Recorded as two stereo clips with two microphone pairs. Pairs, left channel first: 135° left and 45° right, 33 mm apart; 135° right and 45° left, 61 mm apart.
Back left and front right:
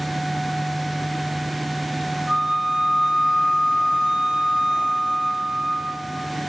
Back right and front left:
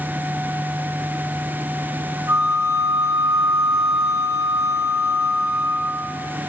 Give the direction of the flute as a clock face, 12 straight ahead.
11 o'clock.